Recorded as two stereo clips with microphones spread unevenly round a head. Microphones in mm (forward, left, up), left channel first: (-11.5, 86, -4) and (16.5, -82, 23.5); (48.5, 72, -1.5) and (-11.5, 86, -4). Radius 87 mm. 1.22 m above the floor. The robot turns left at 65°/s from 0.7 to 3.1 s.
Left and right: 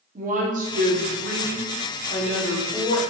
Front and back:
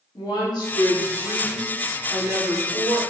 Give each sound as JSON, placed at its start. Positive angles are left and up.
{"t": 0.1, "sound": "a woman speaking", "azimuth_deg": -35, "distance_m": 0.9}